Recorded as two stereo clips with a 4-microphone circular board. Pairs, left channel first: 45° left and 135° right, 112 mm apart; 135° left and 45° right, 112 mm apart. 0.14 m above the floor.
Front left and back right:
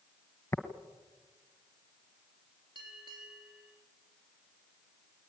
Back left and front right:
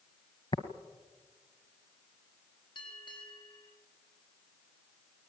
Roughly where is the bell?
Behind.